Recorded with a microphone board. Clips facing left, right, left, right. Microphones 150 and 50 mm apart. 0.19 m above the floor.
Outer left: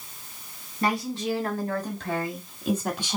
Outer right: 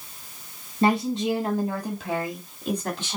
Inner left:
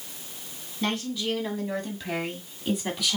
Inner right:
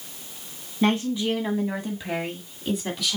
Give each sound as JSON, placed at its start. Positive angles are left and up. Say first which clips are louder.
{"t": 0.8, "sound": "a woman speaking", "louder": "outer right 5 dB, inner right 6 dB", "side_deg": -25, "distance_m": 1.6}